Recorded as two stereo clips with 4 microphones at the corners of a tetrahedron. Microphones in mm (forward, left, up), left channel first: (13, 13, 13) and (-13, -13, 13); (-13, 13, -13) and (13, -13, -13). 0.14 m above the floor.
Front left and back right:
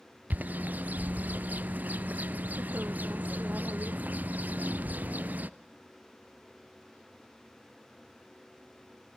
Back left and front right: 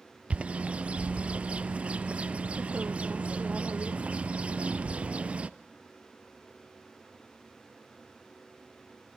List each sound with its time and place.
0.3 s a bird: 100° right, 0.7 m